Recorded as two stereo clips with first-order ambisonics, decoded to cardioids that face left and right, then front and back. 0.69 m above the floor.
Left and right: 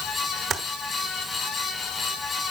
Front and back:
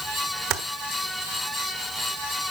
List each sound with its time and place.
0.5 s typing on a keyboard: 145° right, 1.1 m